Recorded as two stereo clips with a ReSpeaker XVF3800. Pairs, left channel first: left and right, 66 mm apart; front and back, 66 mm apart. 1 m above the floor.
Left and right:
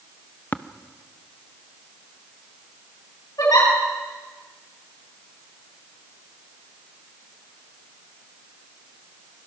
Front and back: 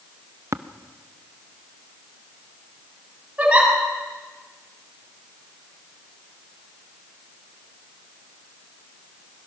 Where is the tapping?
145° left, 0.7 m.